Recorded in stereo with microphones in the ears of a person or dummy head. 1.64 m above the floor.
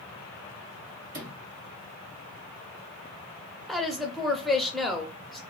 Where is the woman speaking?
Centre (ahead or behind), 0.6 m.